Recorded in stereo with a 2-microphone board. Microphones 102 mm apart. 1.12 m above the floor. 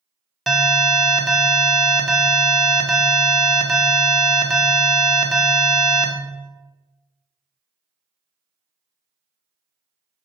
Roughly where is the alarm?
Centre.